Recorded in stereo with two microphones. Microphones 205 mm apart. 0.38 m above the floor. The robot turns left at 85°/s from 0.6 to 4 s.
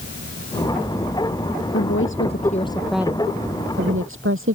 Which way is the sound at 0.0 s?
55° right.